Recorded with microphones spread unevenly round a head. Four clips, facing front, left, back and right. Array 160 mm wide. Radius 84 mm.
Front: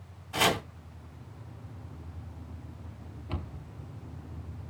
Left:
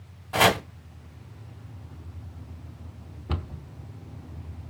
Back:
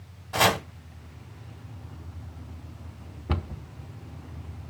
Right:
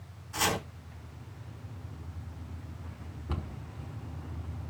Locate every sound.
0.3 s chopping: 110° left, 2.5 m
3.3 s a cupboard door: 160° left, 1.2 m